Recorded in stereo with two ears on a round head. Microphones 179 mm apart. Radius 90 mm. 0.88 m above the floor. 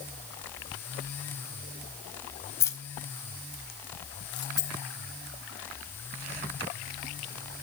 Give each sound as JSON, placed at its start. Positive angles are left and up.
{"t": 2.6, "sound": "keys jangling", "side_deg": 15, "distance_m": 3.5}
{"t": 4.6, "sound": "a dropped coin", "side_deg": 20, "distance_m": 7.5}